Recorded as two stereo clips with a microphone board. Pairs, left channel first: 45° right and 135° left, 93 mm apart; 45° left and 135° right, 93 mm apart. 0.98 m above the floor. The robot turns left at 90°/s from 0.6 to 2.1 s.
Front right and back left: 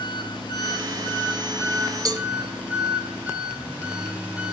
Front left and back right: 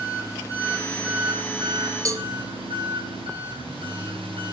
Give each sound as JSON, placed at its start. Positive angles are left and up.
{"t": 0.0, "sound": "an engine running", "azimuth_deg": -10, "distance_m": 7.5}
{"t": 2.0, "sound": "a cowbell", "azimuth_deg": 180, "distance_m": 1.7}